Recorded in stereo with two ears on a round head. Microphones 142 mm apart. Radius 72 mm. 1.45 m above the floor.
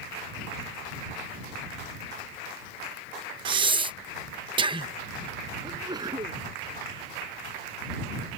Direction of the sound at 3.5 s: 30° right (ahead or behind).